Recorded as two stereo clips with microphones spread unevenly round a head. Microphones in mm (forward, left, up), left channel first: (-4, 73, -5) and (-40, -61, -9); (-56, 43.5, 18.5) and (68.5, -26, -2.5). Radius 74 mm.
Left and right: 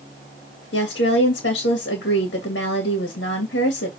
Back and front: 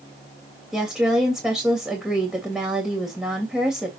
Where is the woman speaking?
55° left, 3 m.